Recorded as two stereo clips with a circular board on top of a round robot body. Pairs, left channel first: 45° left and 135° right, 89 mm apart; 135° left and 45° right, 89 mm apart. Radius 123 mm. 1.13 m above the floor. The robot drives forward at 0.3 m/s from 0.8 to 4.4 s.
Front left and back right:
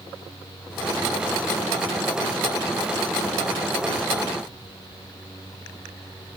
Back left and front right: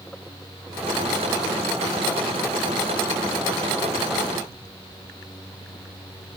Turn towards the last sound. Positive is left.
No sound to turn to.